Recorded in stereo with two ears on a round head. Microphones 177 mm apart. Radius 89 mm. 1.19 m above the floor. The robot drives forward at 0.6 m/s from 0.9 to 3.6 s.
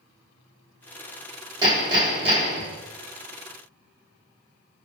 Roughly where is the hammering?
Right.